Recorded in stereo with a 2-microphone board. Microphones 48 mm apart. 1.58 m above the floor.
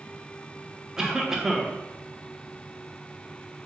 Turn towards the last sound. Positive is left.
turn(degrees=-10)  # may be behind; listen again after turning